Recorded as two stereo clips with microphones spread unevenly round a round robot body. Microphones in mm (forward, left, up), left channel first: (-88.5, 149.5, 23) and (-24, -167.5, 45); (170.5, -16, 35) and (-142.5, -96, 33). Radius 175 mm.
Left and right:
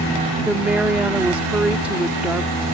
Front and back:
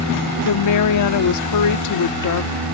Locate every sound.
0.5 s a woman speaking: 10° left